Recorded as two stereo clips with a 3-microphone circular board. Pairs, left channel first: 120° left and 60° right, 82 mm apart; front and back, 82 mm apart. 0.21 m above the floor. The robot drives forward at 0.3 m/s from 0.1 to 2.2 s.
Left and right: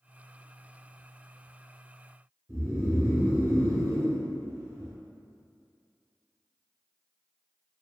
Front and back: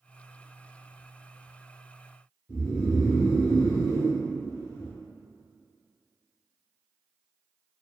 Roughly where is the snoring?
Ahead right.